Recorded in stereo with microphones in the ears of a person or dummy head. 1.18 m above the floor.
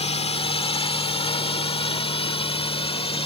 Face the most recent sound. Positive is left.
turn(degrees=25)  # may be behind; listen again after turning